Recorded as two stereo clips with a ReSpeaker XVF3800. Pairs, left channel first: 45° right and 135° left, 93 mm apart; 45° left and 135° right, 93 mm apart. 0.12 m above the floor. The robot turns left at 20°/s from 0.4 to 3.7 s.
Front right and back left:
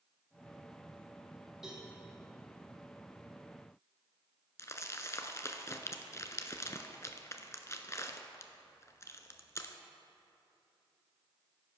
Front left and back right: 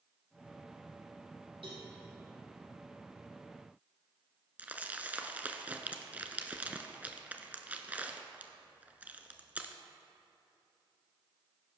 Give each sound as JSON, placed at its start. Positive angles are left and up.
{"t": 1.6, "sound": "a cowbell", "azimuth_deg": -140, "distance_m": 3.5}
{"t": 4.6, "sound": "crumpling", "azimuth_deg": -75, "distance_m": 0.7}